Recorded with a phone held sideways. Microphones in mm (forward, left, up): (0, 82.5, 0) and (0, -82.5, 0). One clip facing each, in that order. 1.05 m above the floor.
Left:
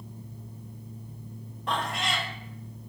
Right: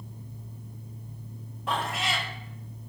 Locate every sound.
0.0 s a fan: 15° left (ahead or behind), 1.8 m
1.7 s a cat meowing: 5° right (ahead or behind), 0.6 m